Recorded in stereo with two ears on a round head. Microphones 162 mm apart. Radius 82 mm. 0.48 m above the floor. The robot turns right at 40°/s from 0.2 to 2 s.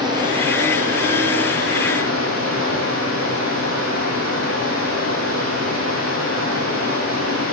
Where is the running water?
155° right, 5 m; by 7.5 s 85° right, 5 m.